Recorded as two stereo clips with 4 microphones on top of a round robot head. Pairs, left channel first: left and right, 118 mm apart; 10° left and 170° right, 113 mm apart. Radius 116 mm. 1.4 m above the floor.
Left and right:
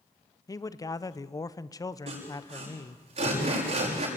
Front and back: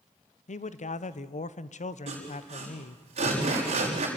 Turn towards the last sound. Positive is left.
turn(degrees=-130)